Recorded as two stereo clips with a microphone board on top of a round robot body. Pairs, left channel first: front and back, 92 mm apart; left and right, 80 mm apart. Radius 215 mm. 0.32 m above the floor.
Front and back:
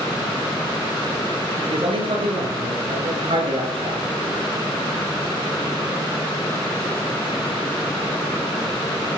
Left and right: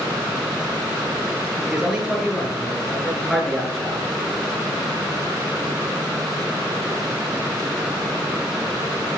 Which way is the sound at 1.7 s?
170° right.